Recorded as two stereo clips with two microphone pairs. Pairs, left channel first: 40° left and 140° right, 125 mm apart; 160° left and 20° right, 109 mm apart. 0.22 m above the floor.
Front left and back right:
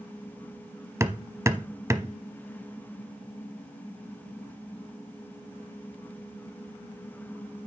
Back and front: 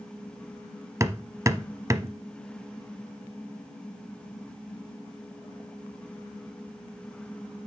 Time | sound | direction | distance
1.0 | hammering | 75° right | 0.8 m